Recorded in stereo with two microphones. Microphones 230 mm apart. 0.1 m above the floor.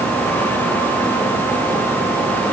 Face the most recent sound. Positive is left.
No sound to turn to.